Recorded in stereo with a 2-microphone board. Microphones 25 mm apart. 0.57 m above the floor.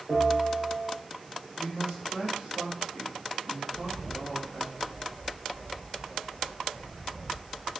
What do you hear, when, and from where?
0.1 s a bell: 55° right (ahead or behind), 1.9 m
1.6 s a man speaking: 45° right (ahead or behind), 1.5 m
3.7 s a bird: 85° right, 1.1 m